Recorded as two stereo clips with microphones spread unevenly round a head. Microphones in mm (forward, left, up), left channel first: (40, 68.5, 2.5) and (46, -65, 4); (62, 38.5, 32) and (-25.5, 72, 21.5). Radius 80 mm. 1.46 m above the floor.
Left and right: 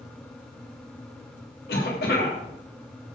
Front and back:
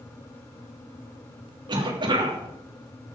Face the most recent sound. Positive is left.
turn(degrees=125)